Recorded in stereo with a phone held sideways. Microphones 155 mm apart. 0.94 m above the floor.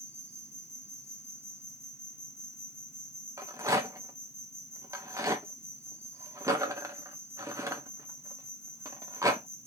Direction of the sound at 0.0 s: 15° right (ahead or behind).